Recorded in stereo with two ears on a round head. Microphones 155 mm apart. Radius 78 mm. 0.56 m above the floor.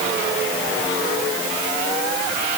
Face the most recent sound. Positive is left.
No sound to turn to.